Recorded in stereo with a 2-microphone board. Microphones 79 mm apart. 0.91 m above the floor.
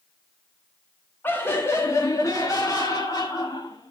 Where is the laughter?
25° left (ahead or behind), 1.6 m; by 3.9 s 65° left (ahead or behind), 2 m.